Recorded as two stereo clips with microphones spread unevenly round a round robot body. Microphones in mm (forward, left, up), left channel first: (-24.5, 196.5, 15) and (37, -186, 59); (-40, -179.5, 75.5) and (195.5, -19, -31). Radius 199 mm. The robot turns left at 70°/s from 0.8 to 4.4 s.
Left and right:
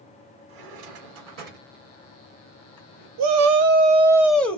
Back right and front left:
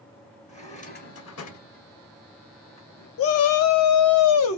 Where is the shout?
100° right, 0.7 m; by 4.6 s 175° left, 0.7 m.